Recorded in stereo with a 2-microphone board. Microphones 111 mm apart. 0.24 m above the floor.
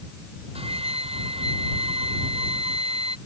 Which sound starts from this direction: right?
A flute, at 0.6 s.